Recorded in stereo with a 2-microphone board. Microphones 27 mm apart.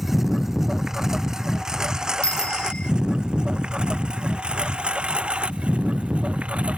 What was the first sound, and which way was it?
A lawn mower, 10° right (ahead or behind).